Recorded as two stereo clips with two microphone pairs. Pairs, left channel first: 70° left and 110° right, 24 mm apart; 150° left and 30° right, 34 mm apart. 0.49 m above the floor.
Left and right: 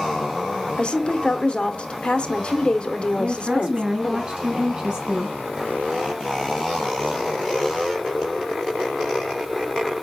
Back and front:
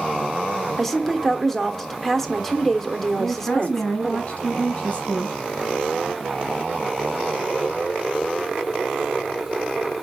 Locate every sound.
0.8 s a woman speaking: 75° left, 1.0 m
3.2 s a woman speaking: 165° right, 3.5 m